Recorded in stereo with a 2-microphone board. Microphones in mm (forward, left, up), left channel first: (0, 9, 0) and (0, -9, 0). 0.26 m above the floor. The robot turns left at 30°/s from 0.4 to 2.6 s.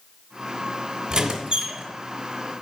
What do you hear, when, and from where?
1.1 s a squeak: 25° right (ahead or behind), 1.3 m; by 1.8 s 45° right (ahead or behind), 1.3 m